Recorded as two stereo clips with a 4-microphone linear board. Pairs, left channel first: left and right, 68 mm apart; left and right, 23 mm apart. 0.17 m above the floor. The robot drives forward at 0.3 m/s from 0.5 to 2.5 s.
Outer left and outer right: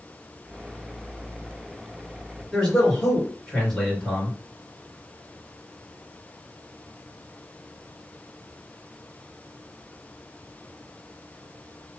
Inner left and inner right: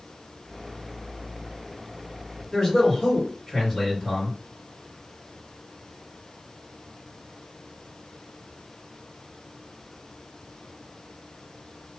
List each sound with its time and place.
2.5 s a man speaking: 5° left (ahead or behind), 3 m